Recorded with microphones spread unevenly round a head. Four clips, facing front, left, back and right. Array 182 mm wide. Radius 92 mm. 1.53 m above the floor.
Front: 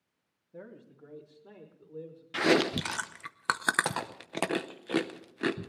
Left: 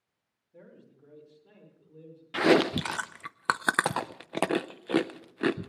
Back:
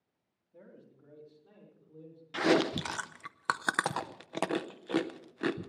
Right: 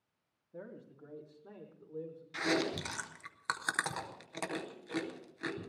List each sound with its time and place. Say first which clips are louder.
0.5 s a man speaking: right 4 dB, front 7 dB; 35° right, 3.5 m; by 2.2 s 45° right, 5.5 m
2.3 s chewing: left 11 dB, front 1 dB; 65° left, 0.7 m